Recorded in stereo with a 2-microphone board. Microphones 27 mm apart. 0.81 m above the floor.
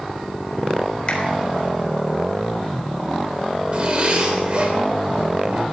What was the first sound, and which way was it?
A finger snap, 40° left (ahead or behind).